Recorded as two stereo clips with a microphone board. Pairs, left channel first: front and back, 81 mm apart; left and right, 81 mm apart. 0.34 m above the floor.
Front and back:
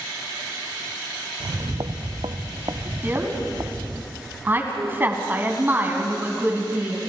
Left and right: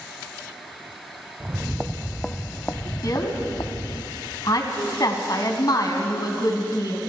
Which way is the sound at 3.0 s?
120° left.